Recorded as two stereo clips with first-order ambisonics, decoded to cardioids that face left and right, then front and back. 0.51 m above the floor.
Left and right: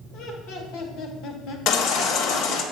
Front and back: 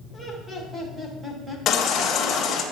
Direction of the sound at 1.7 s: 55° left.